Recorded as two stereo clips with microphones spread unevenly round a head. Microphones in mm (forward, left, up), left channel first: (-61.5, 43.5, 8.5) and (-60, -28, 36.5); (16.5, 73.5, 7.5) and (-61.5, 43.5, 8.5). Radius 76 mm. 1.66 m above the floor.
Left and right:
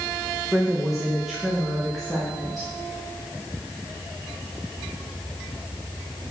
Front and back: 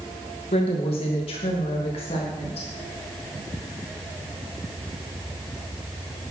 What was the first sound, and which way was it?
A woman speaking, straight ahead.